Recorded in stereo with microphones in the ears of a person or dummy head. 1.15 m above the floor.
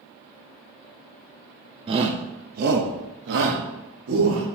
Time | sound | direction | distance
1.9 | a shout | 30° right (ahead or behind) | 0.7 m